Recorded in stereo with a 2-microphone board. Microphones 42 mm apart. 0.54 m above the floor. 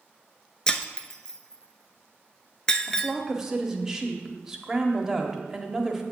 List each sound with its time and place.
0.7 s breaking glass: 20° left (ahead or behind), 0.6 m
2.9 s a woman speaking: 15° right (ahead or behind), 1.0 m